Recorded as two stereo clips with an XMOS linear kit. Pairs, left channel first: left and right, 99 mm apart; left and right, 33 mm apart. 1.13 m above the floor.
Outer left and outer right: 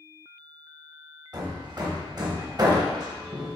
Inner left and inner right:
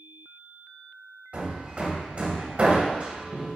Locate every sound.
1.3 s hammering: 40° right (ahead or behind), 0.9 m